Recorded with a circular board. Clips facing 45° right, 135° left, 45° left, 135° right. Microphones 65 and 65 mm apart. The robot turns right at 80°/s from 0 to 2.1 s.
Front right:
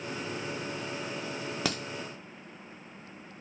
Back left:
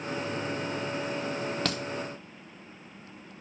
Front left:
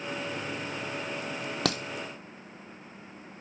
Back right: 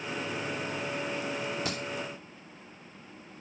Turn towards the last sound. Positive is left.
turn(degrees=75)